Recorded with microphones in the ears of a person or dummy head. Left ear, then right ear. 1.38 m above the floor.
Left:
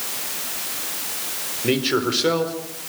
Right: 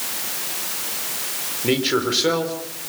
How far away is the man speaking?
About 4 m.